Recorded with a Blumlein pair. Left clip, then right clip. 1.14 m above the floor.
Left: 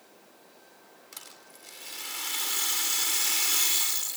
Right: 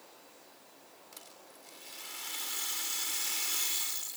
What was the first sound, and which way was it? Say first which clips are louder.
A rattle: left 6 dB; 25° left.